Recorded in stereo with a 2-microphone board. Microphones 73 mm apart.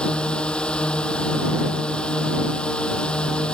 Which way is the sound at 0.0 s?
15° left (ahead or behind).